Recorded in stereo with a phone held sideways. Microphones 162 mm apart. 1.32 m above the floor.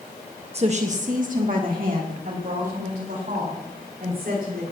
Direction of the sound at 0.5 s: 40° right (ahead or behind).